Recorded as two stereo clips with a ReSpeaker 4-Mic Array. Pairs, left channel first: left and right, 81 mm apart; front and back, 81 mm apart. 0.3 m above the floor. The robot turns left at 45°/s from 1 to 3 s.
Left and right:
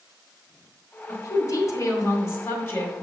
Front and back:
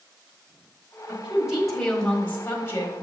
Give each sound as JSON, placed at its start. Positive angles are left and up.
{"t": 1.1, "sound": "a woman speaking", "azimuth_deg": 115, "distance_m": 1.6}